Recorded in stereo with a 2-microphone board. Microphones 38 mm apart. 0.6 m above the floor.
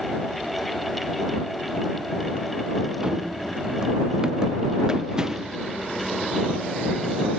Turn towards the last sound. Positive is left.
turn(degrees=-15)  # may be behind; listen again after turning